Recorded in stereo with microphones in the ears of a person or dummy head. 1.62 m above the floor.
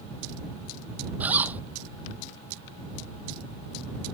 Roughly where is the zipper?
Centre.